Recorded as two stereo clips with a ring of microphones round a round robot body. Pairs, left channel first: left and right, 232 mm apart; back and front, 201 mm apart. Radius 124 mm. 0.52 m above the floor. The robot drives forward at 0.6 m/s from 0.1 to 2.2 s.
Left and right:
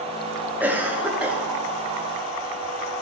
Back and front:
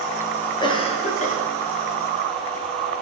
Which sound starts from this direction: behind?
A cough, at 0.6 s.